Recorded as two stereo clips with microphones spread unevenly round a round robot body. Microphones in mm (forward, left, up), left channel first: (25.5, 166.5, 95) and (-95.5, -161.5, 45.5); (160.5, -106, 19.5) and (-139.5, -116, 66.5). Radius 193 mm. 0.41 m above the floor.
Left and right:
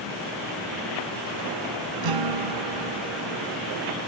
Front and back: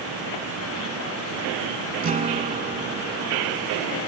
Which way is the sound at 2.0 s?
110° right.